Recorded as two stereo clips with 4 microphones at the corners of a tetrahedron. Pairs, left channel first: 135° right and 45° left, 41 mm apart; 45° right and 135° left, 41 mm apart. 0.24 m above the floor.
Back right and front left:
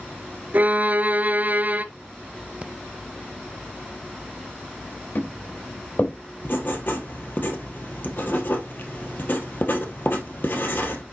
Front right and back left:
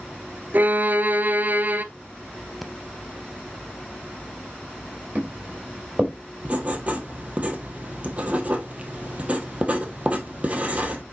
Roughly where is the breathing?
Ahead left.